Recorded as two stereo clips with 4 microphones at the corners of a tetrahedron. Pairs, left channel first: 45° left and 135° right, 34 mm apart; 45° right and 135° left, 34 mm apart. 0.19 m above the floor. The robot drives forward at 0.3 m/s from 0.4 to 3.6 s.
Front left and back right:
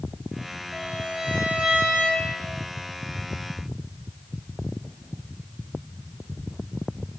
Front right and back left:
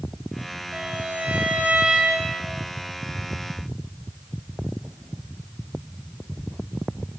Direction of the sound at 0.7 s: 165° left.